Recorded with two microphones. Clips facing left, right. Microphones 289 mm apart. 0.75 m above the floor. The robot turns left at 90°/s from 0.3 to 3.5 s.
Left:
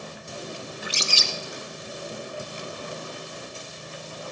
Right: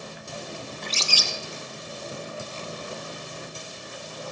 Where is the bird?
175° left, 0.6 m; by 1.3 s 130° left, 0.6 m.